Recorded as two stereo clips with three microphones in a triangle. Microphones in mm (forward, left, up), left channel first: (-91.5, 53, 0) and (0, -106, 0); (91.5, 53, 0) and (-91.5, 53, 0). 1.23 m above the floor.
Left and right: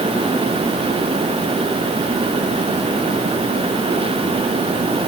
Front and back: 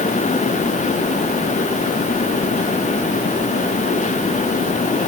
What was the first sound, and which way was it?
Only background noise.